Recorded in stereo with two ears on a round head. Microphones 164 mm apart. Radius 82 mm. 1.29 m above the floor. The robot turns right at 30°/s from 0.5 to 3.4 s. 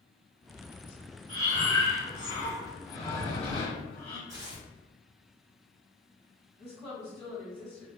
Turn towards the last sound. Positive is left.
turn(degrees=25)  # may be behind; listen again after turning